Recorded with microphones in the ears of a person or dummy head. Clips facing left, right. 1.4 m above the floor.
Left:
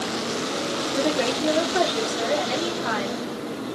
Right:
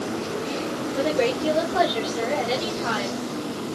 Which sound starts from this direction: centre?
A woman speaking, at 0.9 s.